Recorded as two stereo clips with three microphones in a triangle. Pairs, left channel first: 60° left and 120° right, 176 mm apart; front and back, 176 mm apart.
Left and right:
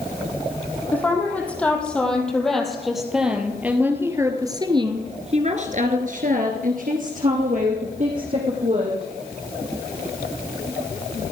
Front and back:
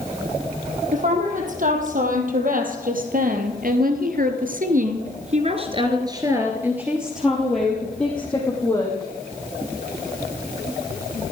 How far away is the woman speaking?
About 5 m.